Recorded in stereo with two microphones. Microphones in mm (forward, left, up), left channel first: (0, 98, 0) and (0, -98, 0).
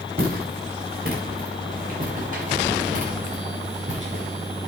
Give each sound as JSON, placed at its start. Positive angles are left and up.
{"t": 0.2, "sound": "footsteps", "side_deg": -50, "distance_m": 7.0}